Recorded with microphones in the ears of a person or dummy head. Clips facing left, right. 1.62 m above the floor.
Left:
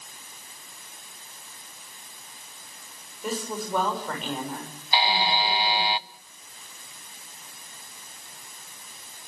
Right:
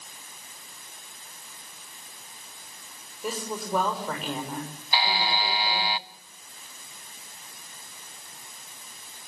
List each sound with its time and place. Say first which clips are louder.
3.2 s a woman speaking: left 1 dB; centre (ahead or behind), 6 m
4.9 s a buzzer: left 3 dB; 25° left (ahead or behind), 0.7 m